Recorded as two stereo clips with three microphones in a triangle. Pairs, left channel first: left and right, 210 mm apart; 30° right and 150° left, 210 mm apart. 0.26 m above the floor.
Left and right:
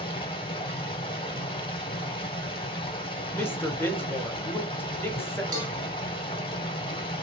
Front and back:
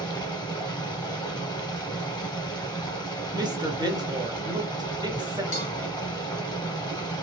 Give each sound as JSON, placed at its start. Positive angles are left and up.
{"t": 0.0, "sound": "running water", "azimuth_deg": 30, "distance_m": 1.0}
{"t": 3.3, "sound": "a woman speaking", "azimuth_deg": 150, "distance_m": 0.9}
{"t": 5.5, "sound": "a cowbell", "azimuth_deg": -155, "distance_m": 1.8}